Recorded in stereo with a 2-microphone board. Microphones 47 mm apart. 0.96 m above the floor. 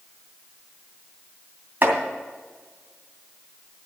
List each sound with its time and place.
1.8 s chopping: 45° right (ahead or behind), 2.5 m